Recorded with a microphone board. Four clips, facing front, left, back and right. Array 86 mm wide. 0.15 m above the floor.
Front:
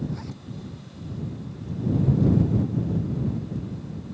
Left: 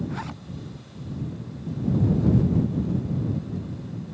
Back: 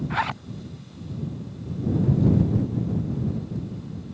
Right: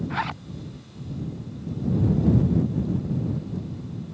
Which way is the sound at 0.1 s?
155° right.